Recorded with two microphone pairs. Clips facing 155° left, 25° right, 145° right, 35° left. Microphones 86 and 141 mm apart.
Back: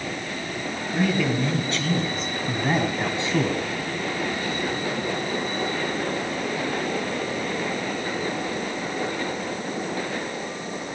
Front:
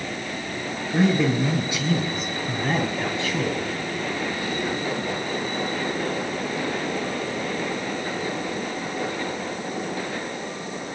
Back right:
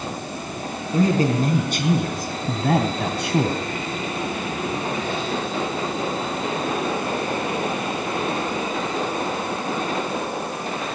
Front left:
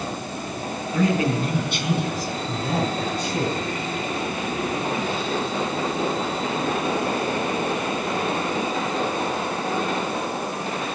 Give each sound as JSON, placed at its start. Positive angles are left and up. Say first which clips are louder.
{"t": 0.9, "sound": "a man speaking", "louder": "front 3 dB, back right 3 dB", "azimuth_deg": -90, "distance_m": 4.0}